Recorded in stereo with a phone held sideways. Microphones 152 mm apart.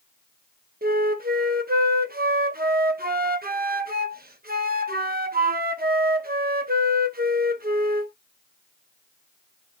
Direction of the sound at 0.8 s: 80° right.